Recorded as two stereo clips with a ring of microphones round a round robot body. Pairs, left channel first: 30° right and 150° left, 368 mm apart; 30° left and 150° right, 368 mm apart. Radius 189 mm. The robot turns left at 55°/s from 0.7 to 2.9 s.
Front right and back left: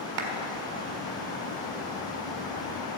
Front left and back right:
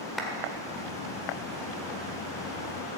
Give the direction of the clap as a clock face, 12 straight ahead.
8 o'clock.